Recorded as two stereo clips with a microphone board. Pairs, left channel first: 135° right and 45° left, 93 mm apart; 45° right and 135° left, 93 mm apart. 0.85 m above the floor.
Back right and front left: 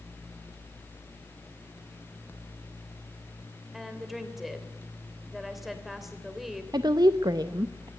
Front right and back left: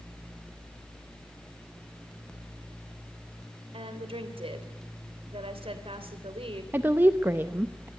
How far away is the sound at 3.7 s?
About 3 m.